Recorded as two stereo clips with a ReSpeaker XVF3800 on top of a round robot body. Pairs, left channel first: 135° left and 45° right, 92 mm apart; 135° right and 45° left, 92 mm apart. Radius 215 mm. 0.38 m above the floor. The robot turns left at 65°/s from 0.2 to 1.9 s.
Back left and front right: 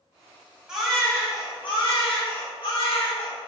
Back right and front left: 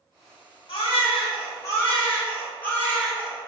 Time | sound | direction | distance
0.7 | a baby crying | 125° right | 3.5 m